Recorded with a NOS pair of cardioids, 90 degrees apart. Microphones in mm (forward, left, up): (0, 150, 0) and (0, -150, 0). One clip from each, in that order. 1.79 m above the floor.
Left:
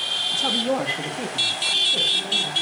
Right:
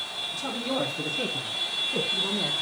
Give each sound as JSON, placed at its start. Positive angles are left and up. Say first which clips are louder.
{"t": 0.3, "sound": "a woman speaking", "louder": "left 5 dB", "azimuth_deg": 45, "distance_m": 1.5}